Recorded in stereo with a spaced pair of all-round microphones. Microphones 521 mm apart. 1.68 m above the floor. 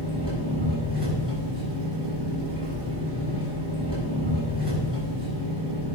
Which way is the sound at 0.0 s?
10° right (ahead or behind).